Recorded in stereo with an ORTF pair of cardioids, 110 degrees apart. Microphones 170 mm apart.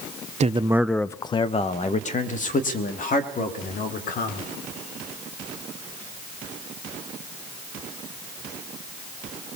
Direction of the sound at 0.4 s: 45° right.